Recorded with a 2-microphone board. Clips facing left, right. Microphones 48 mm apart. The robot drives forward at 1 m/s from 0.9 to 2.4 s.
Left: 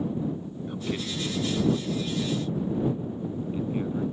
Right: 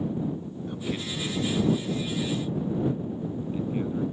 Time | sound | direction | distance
0.7 | a man speaking | 5° left (ahead or behind) | ?